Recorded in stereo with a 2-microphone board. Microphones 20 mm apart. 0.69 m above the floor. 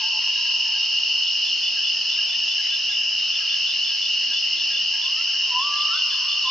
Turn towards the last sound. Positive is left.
turn(degrees=5)  # may be behind; listen again after turning